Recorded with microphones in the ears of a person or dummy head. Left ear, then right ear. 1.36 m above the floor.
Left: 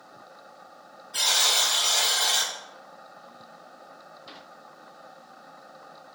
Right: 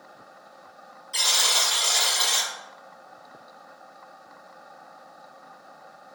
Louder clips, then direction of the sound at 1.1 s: Right 1 dB; 60° right (ahead or behind).